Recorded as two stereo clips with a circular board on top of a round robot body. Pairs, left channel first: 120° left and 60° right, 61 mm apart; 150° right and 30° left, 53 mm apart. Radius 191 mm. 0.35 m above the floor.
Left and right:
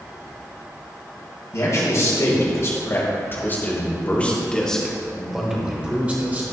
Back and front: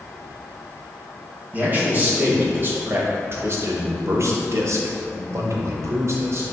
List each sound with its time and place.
1.5 s a man speaking: 85° left, 3 m; by 6.4 s straight ahead, 1.8 m